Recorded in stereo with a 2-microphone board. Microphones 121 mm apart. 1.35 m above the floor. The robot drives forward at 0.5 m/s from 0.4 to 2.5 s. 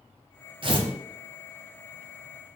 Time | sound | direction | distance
0.6 | tearing paper | 45° right (ahead or behind) | 0.6 m